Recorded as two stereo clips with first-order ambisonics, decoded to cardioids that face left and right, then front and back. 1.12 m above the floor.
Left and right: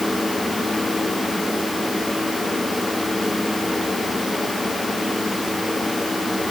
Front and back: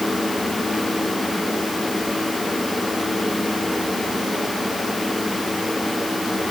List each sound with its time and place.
Only background noise.